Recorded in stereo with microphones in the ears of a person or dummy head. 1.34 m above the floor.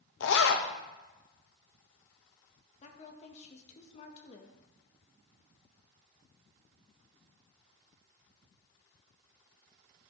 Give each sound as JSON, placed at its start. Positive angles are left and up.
{"t": 0.2, "sound": "a zipper", "side_deg": 70, "distance_m": 0.9}
{"t": 2.8, "sound": "a woman speaking", "side_deg": 45, "distance_m": 1.7}